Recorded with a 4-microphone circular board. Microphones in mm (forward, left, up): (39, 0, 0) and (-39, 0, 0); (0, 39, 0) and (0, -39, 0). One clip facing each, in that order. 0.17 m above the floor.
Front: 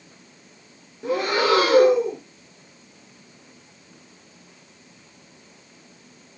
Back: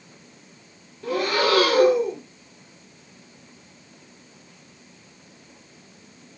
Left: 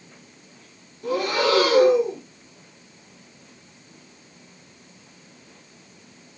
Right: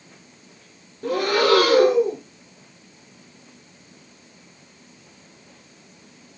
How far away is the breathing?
About 2 m.